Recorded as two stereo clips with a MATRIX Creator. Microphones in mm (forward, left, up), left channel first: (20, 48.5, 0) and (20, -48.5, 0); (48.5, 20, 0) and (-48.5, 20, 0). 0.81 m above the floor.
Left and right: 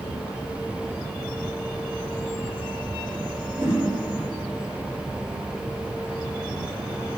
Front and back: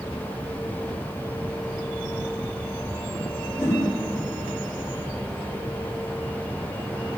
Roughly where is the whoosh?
Ahead right.